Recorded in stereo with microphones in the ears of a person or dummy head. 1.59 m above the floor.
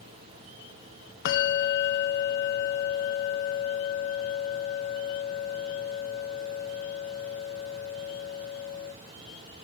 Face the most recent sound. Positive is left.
turn(degrees=55)  # may be behind; listen again after turning